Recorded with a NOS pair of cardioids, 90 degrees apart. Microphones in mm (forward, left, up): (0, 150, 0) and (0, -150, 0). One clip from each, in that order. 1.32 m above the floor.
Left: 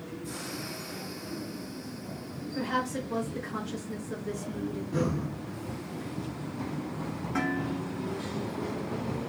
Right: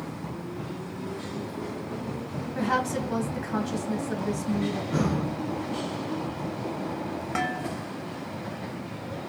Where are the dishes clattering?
65° right, 1.0 m.